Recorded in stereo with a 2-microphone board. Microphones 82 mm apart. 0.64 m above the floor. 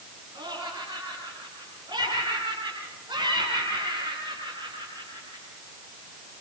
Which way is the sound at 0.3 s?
65° right (ahead or behind).